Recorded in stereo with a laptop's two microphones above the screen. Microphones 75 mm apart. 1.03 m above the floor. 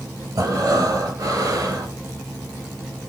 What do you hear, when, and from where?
0.3 s breathing: 60° right (ahead or behind), 3.5 m